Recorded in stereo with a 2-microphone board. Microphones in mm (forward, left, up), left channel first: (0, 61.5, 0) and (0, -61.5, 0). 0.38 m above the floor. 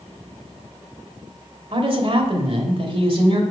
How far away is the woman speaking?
About 1.2 m.